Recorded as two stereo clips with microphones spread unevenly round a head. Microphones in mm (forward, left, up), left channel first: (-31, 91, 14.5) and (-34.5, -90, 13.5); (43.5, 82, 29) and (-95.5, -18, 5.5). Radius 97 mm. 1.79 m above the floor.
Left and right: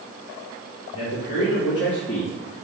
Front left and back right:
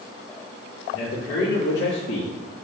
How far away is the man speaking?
About 1.7 m.